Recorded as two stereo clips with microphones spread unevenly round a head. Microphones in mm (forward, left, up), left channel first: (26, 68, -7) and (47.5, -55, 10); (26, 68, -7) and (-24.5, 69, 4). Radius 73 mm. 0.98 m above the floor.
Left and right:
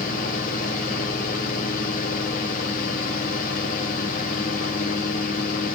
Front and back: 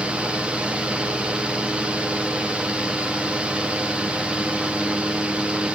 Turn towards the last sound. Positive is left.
turn(degrees=105)